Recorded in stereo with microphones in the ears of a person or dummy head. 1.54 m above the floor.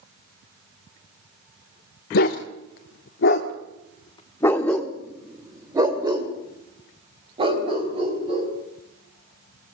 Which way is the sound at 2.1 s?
60° left (ahead or behind).